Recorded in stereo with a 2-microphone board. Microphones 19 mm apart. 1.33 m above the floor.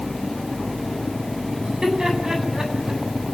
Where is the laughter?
45° right (ahead or behind), 10 m.